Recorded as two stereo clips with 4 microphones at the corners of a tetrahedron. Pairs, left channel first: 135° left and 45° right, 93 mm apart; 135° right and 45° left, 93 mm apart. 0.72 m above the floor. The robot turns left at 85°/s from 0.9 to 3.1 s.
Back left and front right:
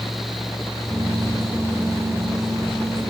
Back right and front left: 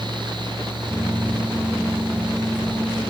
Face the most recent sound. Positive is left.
No sound to turn to.